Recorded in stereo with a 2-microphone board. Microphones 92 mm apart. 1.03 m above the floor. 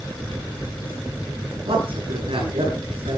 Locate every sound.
1.6 s a man speaking: 80° right, 9.5 m